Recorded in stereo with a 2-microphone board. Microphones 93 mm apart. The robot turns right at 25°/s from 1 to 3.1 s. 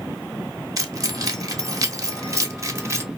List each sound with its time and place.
0.8 s keys jangling: 40° right (ahead or behind), 0.6 m; by 3.1 s 30° right (ahead or behind), 0.6 m